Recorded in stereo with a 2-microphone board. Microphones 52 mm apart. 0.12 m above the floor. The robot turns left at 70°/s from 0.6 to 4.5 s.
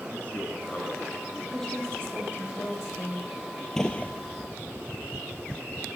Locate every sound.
0.1 s a man speaking: 120° left, 1.3 m; by 1.4 s 65° left, 1.3 m
1.5 s a woman speaking: 175° left, 4 m; by 3.3 s 55° left, 4 m
3.8 s a gunshot: 10° left (ahead or behind), 0.6 m; by 4.1 s 35° left (ahead or behind), 0.6 m